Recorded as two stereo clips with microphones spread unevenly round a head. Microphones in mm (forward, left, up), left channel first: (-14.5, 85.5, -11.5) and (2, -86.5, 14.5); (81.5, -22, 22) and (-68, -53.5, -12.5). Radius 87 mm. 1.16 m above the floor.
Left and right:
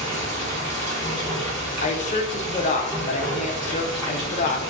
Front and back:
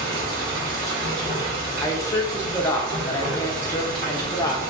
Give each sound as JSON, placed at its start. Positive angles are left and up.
{"t": 0.0, "sound": "running water", "azimuth_deg": -145, "distance_m": 1.8}
{"t": 1.8, "sound": "a woman speaking", "azimuth_deg": 90, "distance_m": 0.5}